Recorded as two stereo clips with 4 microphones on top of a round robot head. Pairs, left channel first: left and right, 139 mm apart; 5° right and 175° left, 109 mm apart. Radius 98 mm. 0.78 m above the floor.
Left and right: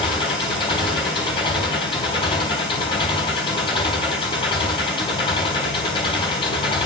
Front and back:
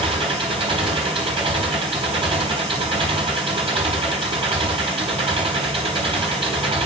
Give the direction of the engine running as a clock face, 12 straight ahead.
7 o'clock.